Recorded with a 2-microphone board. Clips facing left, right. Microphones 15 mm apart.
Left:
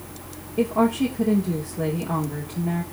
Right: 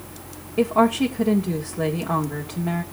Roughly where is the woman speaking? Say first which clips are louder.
Right 2 dB; right.